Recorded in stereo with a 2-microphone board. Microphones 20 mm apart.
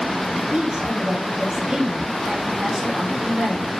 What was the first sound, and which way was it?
A woman speaking, 65° right (ahead or behind).